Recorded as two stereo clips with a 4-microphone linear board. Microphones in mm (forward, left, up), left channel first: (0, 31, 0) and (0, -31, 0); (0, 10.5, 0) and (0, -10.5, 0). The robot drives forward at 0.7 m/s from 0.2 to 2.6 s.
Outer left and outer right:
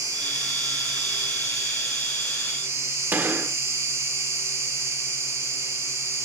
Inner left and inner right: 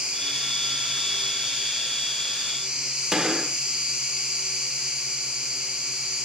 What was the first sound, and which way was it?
An insect, 65° right (ahead or behind).